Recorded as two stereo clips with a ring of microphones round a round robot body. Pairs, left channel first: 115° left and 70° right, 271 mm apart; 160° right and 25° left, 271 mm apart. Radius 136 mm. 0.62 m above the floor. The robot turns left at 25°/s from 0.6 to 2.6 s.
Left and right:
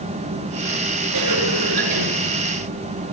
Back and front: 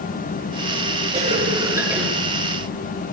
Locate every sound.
1.1 s a cough: 40° right, 7 m; by 2.1 s 65° right, 7 m